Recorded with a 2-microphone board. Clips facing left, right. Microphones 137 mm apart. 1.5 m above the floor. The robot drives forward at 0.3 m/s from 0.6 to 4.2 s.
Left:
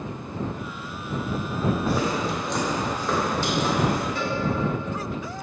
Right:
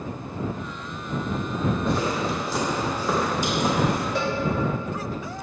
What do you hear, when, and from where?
1.9 s footsteps: 5° left (ahead or behind), 3 m; by 4.0 s 20° right (ahead or behind), 4.5 m
4.2 s a cowbell: 80° right, 1.9 m